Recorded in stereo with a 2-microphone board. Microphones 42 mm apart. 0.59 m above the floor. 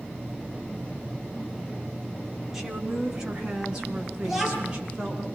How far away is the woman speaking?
About 5.5 m.